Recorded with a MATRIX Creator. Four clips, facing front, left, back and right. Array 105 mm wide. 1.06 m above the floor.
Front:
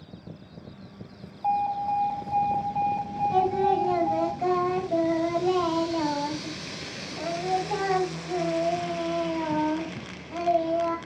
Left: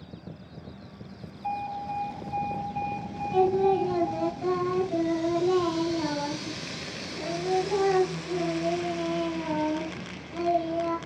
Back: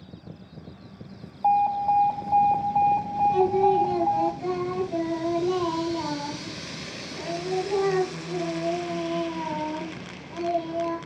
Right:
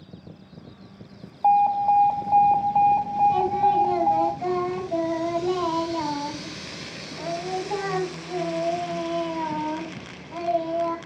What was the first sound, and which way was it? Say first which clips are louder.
An alarm: right 14 dB, back 4 dB; 110° right.